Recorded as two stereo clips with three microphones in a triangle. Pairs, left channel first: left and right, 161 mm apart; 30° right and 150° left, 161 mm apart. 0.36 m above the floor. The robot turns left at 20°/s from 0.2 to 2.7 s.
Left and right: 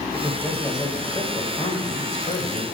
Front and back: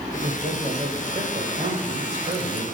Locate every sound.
0.1 s a man speaking: 165° left, 1.2 m; by 2.6 s 115° left, 1.2 m